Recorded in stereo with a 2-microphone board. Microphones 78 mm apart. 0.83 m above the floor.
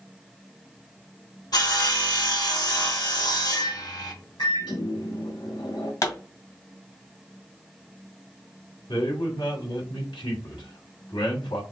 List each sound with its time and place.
1.5 s sawing: 55° left (ahead or behind), 1.6 m
3.5 s a microwave: 60° left (ahead or behind), 2.5 m
6.0 s a pop: 45° left (ahead or behind), 1.9 m
8.9 s a man speaking: 75° left (ahead or behind), 2.5 m